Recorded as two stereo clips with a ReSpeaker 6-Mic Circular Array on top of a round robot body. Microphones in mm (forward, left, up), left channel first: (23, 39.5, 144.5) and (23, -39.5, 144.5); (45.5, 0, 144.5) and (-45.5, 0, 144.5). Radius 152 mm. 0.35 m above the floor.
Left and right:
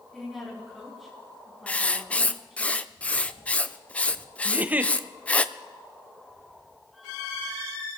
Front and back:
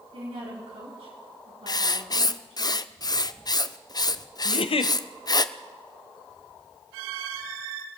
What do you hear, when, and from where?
0.1 s a woman speaking: straight behind, 4.5 m
1.7 s writing: 20° left, 0.8 m
4.5 s a giggle: 20° right, 0.7 m